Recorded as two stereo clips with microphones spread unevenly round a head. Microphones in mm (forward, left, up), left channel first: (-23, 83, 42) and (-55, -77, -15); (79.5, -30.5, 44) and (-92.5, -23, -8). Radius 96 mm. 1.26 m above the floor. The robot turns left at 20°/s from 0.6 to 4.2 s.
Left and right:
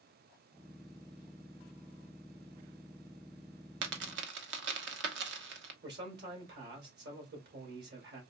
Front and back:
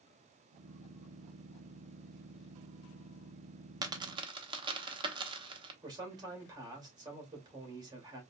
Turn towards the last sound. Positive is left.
turn(degrees=-115)